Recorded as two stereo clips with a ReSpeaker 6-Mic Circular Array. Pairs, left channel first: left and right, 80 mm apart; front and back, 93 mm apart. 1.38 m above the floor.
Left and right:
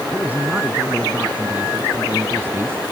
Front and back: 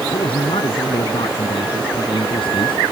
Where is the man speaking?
20° right; by 2.8 s 25° right.